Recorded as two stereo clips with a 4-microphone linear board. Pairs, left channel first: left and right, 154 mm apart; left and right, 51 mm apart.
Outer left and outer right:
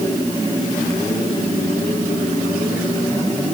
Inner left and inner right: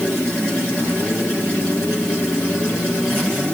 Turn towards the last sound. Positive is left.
No sound to turn to.